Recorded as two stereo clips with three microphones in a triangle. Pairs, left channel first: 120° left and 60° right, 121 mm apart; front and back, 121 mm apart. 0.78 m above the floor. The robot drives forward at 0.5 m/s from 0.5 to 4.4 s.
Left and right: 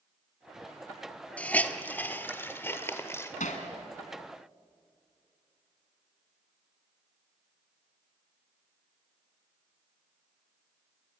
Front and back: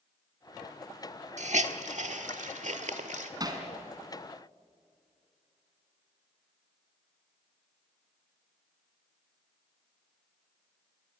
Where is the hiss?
160° right, 1.1 m; by 3.3 s 170° right, 2 m.